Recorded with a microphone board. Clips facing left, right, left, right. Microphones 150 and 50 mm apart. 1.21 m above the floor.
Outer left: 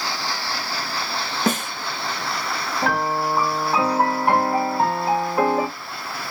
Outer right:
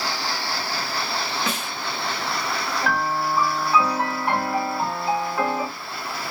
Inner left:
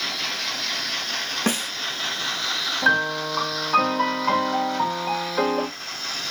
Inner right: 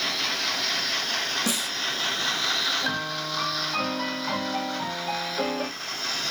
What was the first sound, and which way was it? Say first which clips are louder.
A snare drum: outer left 6 dB, inner left 4 dB; 45° left (ahead or behind).